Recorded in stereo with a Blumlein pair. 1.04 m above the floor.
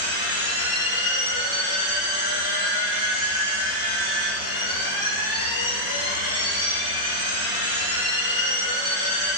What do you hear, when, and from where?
0.0 s a machine running: 70° left, 1.1 m